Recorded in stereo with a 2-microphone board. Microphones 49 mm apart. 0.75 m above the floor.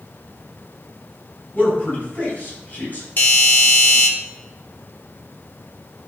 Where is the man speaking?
30° left (ahead or behind), 6.5 m.